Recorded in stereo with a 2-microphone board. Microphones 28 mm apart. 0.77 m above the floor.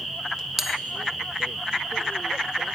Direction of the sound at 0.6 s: 10° right (ahead or behind).